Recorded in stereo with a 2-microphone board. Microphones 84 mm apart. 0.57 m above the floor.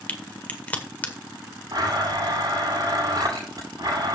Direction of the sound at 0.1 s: 20° left (ahead or behind).